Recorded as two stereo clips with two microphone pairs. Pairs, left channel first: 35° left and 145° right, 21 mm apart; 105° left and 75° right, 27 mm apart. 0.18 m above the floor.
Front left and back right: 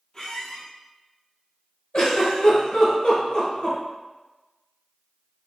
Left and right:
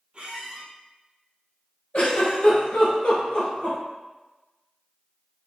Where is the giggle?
70° left, 1.2 m.